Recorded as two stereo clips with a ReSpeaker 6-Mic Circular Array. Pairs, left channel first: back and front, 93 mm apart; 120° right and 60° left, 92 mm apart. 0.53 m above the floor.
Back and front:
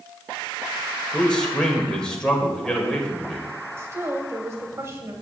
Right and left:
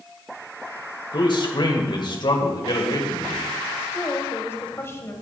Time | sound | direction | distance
1.1 | a man speaking | 100° right | 2.5 m
3.8 | a woman speaking | 60° right | 2.5 m